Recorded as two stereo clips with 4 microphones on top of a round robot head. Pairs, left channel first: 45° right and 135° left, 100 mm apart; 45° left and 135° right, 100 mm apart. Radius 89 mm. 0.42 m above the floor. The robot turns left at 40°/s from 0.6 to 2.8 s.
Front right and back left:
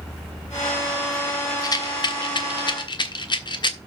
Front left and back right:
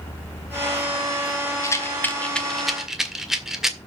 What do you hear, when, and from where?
1.6 s a rattle: 5° right, 1.7 m; by 3.8 s 55° right, 1.7 m